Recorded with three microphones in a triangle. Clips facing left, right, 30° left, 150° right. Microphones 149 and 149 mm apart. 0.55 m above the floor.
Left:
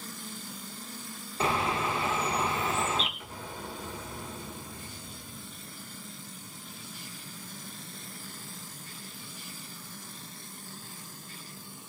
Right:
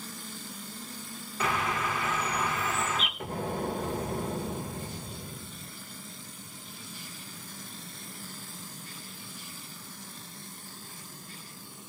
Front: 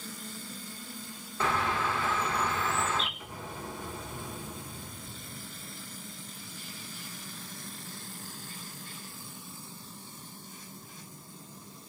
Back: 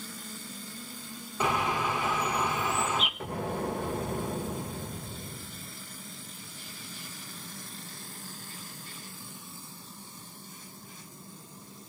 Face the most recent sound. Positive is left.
turn(degrees=-125)